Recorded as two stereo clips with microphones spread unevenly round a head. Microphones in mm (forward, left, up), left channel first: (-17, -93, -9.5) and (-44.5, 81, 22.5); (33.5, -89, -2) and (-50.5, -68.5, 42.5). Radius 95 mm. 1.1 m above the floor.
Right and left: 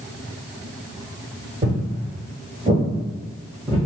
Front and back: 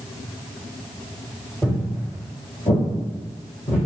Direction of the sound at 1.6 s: 85° left.